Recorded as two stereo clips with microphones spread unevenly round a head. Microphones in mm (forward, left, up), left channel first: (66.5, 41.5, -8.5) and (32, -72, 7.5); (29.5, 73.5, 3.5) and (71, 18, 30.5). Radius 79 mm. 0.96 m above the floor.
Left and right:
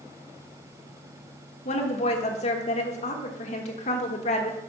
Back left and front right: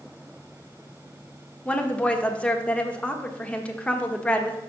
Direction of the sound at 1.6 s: 65° left.